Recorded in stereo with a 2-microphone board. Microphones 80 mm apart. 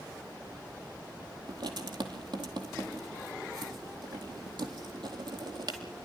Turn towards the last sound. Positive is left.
turn(degrees=-70)  # may be behind; listen again after turning